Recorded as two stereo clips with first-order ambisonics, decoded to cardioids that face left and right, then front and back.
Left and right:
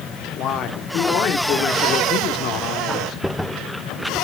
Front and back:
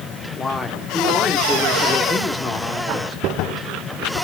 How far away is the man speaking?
About 1.6 m.